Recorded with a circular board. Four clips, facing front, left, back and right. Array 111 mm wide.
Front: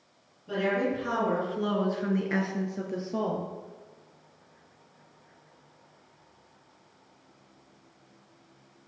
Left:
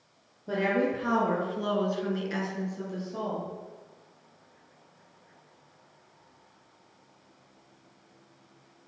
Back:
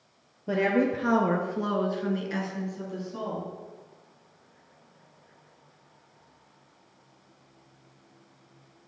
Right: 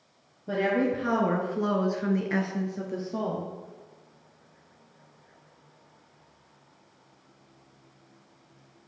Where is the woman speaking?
Straight behind, 2 m; by 3.5 s 25° right, 2.5 m.